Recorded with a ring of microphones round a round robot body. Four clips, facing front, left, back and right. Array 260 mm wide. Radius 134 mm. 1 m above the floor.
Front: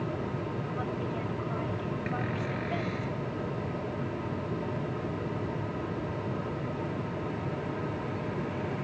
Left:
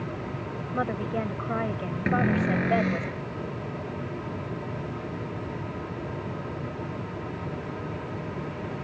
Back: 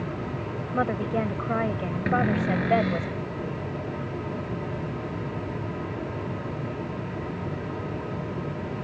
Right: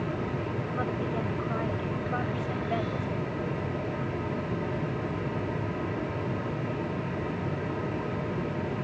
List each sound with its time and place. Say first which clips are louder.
0.7 s a woman speaking: left 4 dB, back 12 dB; 160° left
2.1 s a cupboard door: left 7 dB, back 13 dB; 125° left